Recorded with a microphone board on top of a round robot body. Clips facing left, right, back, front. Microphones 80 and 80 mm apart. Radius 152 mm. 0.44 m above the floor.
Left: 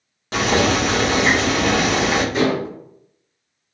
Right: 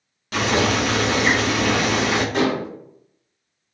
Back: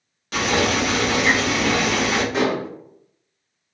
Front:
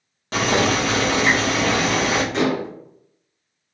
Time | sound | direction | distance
0.3 | boiling | 40° left | 1.3 m
2.3 | dishes clattering | 95° right | 1.4 m